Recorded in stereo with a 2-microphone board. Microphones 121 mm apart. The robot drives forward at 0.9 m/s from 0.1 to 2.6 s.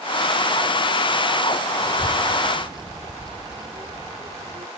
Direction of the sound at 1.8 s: 30° right (ahead or behind).